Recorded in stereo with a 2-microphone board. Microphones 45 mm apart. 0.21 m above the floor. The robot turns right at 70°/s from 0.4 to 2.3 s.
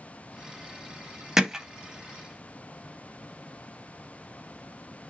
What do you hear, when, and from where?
1.4 s hammering: 10° right (ahead or behind), 0.5 m; by 1.6 s 15° right (ahead or behind), 0.5 m